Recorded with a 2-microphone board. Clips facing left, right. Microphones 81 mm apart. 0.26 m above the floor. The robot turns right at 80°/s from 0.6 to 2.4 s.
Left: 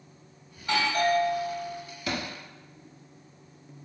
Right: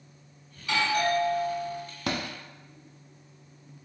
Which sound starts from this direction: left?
A doorbell, at 0.6 s.